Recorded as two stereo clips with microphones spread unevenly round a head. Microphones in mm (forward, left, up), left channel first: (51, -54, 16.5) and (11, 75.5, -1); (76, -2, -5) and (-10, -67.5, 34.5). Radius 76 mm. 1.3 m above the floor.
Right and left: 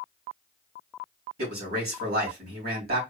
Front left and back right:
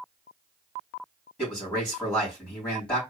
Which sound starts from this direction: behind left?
A man speaking, at 1.4 s.